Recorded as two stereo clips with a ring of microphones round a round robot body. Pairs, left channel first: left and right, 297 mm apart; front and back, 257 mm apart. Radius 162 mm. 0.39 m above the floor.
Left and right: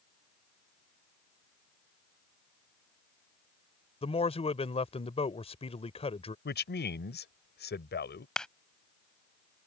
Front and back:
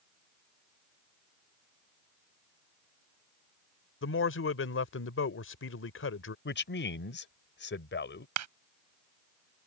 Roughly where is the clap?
Behind.